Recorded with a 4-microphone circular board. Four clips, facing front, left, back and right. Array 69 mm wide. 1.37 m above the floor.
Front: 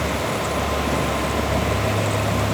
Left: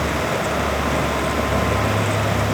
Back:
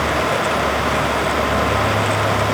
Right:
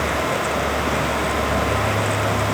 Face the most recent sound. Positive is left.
No sound to turn to.